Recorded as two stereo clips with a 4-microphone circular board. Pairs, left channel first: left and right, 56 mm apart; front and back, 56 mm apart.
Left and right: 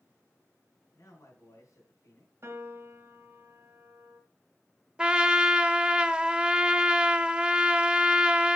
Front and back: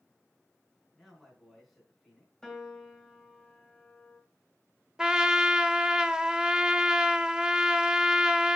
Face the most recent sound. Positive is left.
turn(degrees=-130)